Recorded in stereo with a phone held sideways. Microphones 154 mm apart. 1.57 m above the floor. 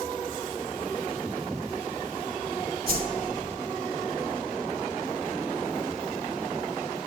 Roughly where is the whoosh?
Right.